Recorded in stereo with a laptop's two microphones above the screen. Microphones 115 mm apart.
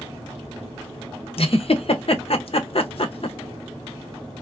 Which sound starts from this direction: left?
A giggle, at 1.4 s.